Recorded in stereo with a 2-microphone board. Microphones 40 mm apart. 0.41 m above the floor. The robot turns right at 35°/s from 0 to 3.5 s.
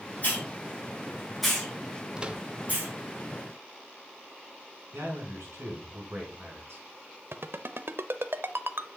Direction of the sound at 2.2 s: 20° right (ahead or behind).